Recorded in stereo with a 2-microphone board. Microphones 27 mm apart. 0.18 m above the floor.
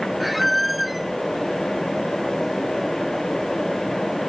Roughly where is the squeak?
Centre.